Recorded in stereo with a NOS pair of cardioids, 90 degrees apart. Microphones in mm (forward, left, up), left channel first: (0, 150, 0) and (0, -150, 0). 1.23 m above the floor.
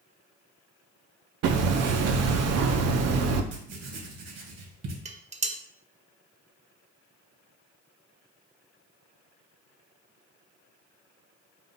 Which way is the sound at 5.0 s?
25° right.